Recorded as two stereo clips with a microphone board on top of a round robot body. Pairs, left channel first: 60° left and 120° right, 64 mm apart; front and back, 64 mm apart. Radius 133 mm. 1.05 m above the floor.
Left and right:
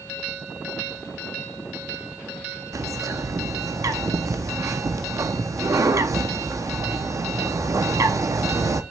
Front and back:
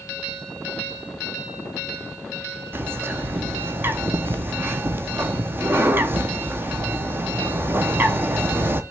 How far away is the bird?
About 1.2 m.